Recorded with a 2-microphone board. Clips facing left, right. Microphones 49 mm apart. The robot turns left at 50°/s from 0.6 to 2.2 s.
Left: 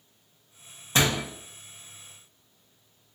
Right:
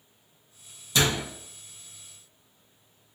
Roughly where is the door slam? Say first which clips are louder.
Left 1 dB; left.